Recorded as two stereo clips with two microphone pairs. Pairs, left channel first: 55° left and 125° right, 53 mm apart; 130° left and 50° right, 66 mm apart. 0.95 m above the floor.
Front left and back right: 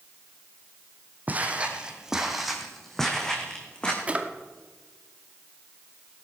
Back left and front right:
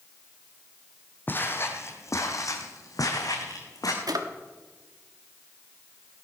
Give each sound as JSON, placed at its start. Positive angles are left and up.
{"t": 1.3, "sound": "footsteps", "azimuth_deg": 180, "distance_m": 1.7}
{"t": 4.1, "sound": "a drawer", "azimuth_deg": -60, "distance_m": 1.1}